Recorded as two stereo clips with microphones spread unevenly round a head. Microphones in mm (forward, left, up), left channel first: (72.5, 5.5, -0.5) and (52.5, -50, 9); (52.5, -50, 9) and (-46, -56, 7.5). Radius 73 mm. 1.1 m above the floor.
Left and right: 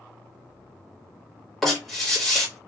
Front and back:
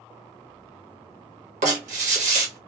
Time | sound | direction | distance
1.6 | writing | 155° left | 1.2 m